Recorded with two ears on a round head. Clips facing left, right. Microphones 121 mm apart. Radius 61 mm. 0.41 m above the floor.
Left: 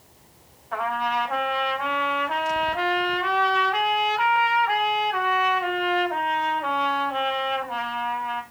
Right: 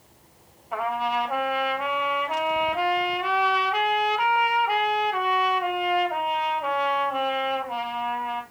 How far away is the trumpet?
About 1.8 m.